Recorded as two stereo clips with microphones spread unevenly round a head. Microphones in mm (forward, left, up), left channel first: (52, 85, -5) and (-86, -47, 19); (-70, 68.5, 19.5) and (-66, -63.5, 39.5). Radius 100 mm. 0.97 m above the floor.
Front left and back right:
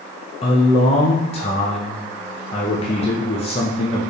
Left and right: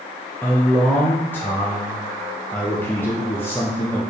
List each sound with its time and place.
0.4 s a man speaking: 40° left, 0.6 m